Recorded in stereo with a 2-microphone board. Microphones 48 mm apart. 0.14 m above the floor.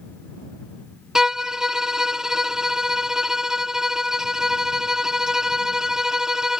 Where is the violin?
10° right (ahead or behind).